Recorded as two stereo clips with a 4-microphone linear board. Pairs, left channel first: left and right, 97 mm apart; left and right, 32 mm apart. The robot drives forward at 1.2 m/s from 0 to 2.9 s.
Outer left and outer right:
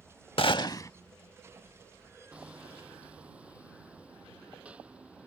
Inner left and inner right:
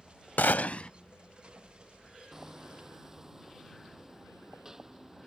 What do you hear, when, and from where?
0.4 s a gunshot: 65° left (ahead or behind); by 0.9 s 35° left (ahead or behind)
2.3 s hammering: 10° right (ahead or behind)